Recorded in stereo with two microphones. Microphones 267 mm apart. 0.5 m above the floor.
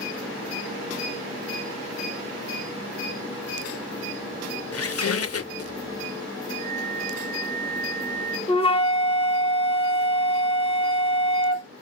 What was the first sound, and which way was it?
A squeak, 60° left (ahead or behind).